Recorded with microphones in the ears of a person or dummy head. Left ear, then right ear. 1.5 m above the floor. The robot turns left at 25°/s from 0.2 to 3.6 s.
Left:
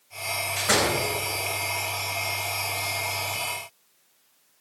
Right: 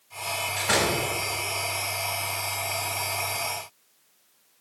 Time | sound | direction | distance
0.6 | a door slam | 25° left (ahead or behind) | 5 m